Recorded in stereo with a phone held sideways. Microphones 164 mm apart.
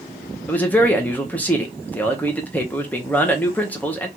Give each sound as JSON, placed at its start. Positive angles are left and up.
{"t": 0.5, "sound": "a man speaking", "side_deg": 10, "distance_m": 0.8}